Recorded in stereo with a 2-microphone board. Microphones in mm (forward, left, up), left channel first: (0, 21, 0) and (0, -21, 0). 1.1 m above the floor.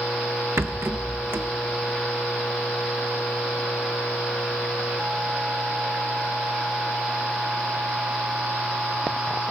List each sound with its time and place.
0.6 s a rattle: 70° right (ahead or behind), 1.1 m